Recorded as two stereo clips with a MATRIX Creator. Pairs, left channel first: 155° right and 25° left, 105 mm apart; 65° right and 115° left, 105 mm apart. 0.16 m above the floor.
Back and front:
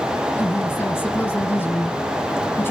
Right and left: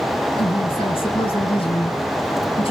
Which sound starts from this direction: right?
A woman speaking, at 0.4 s.